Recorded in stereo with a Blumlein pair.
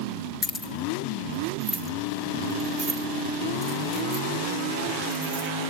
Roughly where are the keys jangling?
Ahead.